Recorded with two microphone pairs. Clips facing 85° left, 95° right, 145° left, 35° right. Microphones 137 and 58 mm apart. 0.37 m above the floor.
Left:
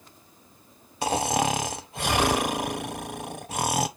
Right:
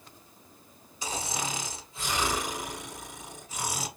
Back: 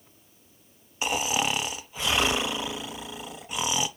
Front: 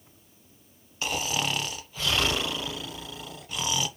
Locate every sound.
1.0 s snoring: 70° left, 0.5 m